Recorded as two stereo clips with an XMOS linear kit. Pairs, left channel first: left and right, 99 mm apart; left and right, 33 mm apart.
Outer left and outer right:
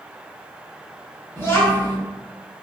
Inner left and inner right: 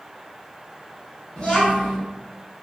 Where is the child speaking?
25° left (ahead or behind), 0.7 m.